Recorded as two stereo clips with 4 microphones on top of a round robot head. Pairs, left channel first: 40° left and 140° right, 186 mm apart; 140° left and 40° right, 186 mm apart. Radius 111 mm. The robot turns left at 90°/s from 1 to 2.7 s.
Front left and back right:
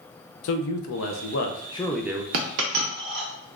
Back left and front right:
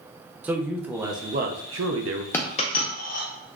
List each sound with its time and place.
0.4 s a man speaking: 40° left, 0.6 m; by 2.2 s 70° right, 0.6 m
2.3 s a dropped coin: 140° right, 0.6 m; by 3.3 s 175° right, 0.6 m